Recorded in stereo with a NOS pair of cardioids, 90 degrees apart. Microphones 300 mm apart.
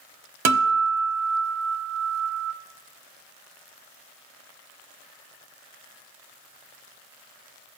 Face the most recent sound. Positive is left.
turn(degrees=-60)